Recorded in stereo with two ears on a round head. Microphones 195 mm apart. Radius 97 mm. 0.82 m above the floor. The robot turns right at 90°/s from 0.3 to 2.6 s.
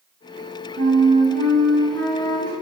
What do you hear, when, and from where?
0.8 s a flute: 95° right, 0.8 m; by 2.5 s 65° left, 0.8 m